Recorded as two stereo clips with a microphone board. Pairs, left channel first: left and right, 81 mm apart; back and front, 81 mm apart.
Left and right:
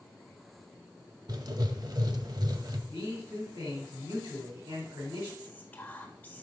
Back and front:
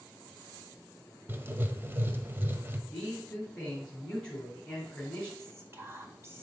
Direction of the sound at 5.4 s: 35° left.